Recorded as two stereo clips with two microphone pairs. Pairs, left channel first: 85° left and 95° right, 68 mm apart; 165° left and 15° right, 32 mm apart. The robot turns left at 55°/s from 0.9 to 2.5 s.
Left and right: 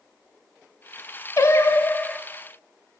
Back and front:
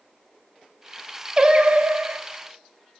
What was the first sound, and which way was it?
Singing, 50° left.